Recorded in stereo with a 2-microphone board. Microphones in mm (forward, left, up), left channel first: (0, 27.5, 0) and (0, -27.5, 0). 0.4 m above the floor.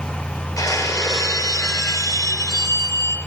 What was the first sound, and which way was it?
Breaking glass, 80° left.